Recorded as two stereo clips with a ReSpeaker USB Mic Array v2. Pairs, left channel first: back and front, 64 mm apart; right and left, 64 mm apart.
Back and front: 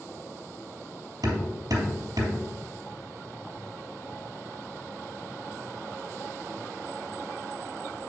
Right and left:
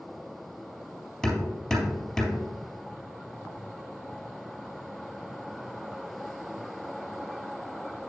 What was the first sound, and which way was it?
Hammering, 5° right.